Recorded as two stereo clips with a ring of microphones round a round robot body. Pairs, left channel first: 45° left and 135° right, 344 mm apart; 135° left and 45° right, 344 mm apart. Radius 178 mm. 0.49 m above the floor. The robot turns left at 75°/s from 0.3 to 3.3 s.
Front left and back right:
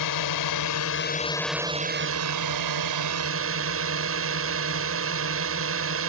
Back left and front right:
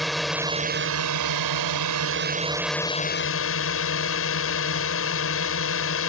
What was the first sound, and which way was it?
A drone, 45° left.